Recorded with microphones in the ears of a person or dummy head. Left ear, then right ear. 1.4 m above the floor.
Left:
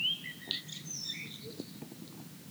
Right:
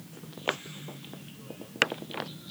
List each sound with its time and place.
Only background noise.